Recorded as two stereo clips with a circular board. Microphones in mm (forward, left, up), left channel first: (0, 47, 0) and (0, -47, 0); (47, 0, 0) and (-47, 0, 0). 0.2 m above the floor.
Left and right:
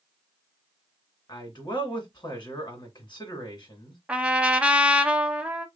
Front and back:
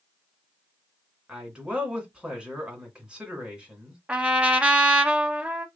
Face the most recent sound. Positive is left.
turn(degrees=-135)